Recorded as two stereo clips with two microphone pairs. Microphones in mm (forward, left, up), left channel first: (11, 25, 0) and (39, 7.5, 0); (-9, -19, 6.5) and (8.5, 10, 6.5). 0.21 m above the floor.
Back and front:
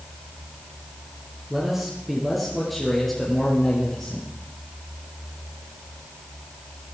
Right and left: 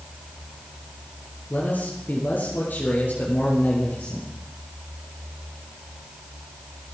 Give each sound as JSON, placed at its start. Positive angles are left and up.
{"t": 1.5, "sound": "a man speaking", "azimuth_deg": -110, "distance_m": 3.5}